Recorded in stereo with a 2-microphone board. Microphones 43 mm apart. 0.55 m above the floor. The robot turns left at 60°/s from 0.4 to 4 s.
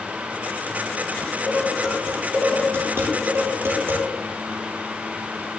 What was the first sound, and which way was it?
Dishes clattering, 45° left (ahead or behind).